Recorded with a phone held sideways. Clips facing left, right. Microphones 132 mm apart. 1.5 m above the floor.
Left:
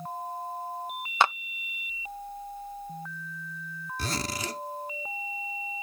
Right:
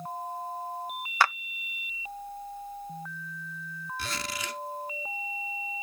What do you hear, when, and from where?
1.2 s a clap: 20° left (ahead or behind)
4.0 s a zipper: 40° left (ahead or behind)